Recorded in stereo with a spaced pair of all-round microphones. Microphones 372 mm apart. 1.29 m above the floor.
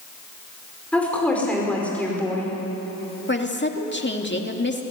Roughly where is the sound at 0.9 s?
Centre.